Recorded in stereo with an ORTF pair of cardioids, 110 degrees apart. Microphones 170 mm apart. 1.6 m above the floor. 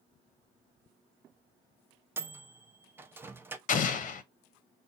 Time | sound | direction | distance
2.2 | a microwave | 15° right | 0.5 m
3.7 | an explosion | 50° left | 0.8 m